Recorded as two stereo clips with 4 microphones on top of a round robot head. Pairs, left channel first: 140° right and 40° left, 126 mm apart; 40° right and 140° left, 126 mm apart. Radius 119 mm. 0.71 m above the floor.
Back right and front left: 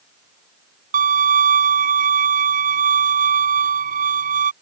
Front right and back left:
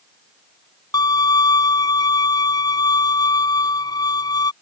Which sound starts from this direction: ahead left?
A violin, at 0.9 s.